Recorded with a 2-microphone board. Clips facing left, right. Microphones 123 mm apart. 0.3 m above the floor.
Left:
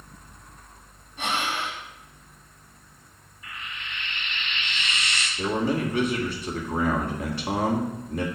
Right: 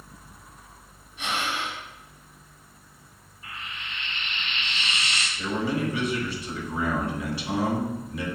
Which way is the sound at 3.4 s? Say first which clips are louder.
Even; 35° right (ahead or behind).